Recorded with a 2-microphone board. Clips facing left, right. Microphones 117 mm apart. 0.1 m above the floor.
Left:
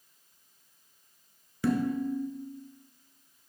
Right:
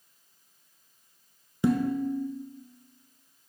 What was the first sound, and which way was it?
Dishes clattering, 20° right (ahead or behind).